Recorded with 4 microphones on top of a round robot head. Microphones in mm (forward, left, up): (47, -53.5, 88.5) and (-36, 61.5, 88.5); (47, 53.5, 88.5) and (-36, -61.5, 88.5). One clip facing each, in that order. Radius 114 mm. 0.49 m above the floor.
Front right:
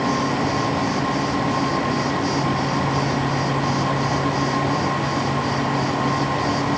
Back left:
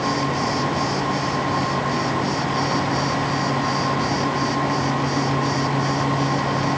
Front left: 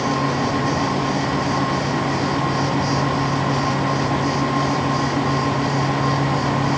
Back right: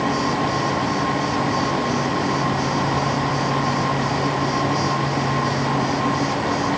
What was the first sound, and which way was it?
Only background noise.